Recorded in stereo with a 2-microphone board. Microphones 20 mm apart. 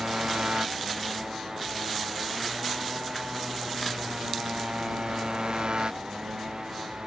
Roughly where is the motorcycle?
Right.